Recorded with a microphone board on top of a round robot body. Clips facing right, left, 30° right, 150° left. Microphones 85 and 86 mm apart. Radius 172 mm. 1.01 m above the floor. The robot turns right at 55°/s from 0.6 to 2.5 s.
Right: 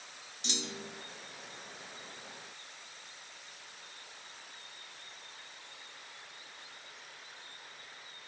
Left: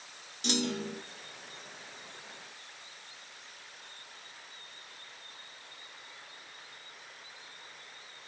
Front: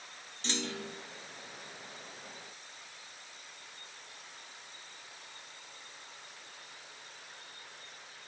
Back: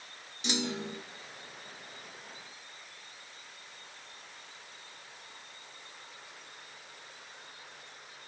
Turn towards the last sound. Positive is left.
turn(degrees=180)